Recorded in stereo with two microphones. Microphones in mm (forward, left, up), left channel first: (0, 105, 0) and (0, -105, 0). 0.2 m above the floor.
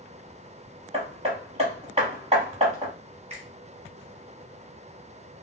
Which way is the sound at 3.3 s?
35° right (ahead or behind).